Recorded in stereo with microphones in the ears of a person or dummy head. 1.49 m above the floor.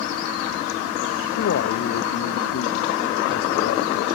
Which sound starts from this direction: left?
A man speaking, at 1.4 s.